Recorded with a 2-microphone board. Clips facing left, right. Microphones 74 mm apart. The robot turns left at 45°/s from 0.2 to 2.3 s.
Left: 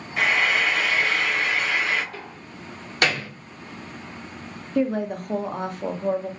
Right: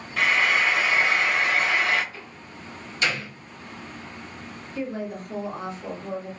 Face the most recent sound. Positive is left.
turn(degrees=60)  # may be behind; listen again after turning